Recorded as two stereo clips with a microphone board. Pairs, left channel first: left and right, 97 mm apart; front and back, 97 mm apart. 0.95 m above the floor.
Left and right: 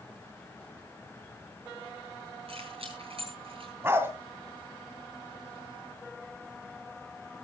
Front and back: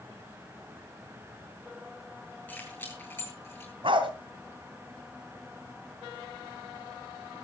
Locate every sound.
2.5 s keys jangling: 70° right, 9 m; by 3.7 s 65° right, 10 m
3.8 s a dog barking: 155° right, 2 m